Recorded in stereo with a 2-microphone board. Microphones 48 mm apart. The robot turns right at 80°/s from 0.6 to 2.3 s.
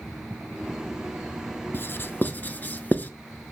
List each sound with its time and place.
1.7 s writing: 45° left (ahead or behind), 0.6 m; by 3.1 s 35° left (ahead or behind), 0.6 m